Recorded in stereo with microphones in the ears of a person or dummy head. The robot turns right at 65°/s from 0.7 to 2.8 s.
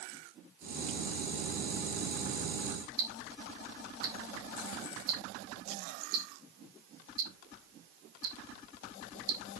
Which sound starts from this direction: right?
Ticking, at 3.0 s.